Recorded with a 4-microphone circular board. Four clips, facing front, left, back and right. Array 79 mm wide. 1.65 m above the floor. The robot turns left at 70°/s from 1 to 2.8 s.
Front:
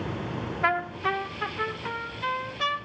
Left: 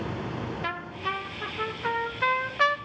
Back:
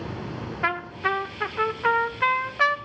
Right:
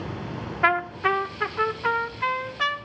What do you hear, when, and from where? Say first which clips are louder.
0.6 s a trumpet: right 15 dB, even; 110° right, 1.4 m; by 2.8 s 125° left, 1.4 m